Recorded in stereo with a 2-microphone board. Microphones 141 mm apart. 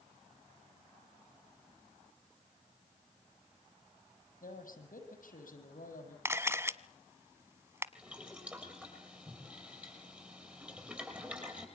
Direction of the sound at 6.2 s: 20° right (ahead or behind).